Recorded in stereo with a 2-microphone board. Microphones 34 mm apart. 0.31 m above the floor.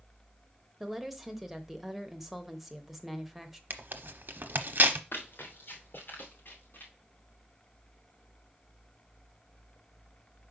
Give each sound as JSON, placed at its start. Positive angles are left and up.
{"t": 0.8, "sound": "a woman speaking", "side_deg": -10, "distance_m": 0.9}
{"t": 3.7, "sound": "tearing paper", "side_deg": -65, "distance_m": 0.8}
{"t": 5.1, "sound": "running footsteps", "side_deg": 75, "distance_m": 2.5}